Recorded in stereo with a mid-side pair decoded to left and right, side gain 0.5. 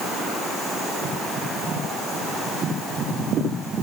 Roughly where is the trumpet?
No trumpet in this recording.